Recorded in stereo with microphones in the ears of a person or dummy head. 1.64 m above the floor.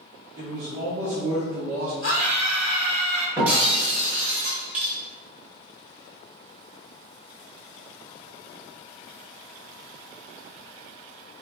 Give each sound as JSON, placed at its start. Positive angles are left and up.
{"t": 0.4, "sound": "a man speaking", "side_deg": -15, "distance_m": 1.0}
{"t": 2.0, "sound": "a scream", "side_deg": 70, "distance_m": 1.1}
{"t": 3.4, "sound": "breaking glass", "side_deg": -5, "distance_m": 1.0}